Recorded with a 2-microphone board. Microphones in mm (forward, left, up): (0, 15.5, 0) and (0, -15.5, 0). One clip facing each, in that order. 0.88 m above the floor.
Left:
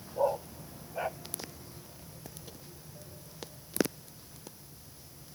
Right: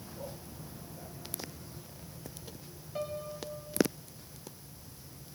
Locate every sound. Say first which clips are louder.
0.2 s a dog barking: left 17 dB; 70° left (ahead or behind)
3.0 s a piano: right 13 dB; 70° right (ahead or behind)